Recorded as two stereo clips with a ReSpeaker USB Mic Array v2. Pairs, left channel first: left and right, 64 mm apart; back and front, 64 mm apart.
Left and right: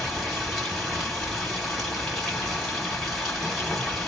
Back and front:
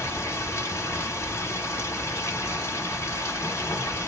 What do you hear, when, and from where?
0.0 s running water: straight behind, 1.3 m